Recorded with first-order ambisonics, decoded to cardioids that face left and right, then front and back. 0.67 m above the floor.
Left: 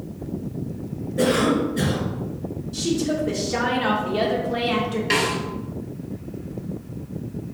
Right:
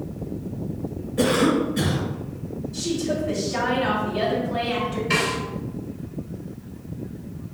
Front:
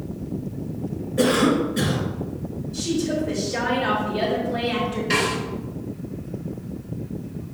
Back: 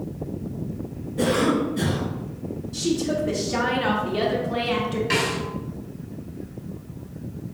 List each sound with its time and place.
1.2 s a cough: 50° right, 1.2 m
2.7 s a woman speaking: 140° left, 1.2 m
5.1 s a snare drum: 110° left, 1.7 m